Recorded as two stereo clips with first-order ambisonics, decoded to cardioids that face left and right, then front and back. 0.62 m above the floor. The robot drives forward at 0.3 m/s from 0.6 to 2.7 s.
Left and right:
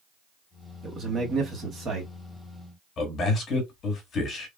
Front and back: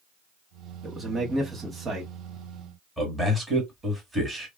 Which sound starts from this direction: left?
A man speaking, at 3.0 s.